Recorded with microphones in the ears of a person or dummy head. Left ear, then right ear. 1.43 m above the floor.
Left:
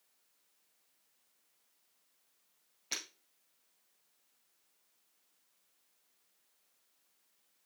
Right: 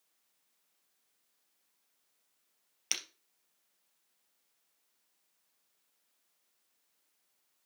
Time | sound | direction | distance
2.9 | breaking glass | 65° right (ahead or behind) | 3 m